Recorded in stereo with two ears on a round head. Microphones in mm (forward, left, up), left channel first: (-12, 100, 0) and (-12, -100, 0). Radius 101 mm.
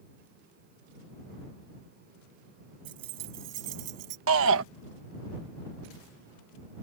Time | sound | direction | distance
2.9 | keys jangling | 85° right | ?
4.3 | a shout | 60° right (ahead or behind) | ?